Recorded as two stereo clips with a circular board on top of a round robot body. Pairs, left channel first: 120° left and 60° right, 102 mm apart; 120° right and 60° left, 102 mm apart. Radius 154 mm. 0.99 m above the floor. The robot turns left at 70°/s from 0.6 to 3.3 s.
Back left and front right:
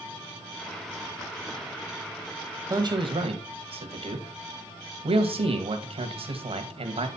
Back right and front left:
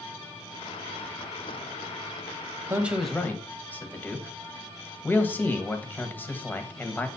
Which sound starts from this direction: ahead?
A man speaking, at 2.7 s.